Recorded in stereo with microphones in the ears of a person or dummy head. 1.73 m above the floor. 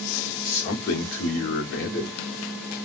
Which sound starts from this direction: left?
A man speaking, at 0.4 s.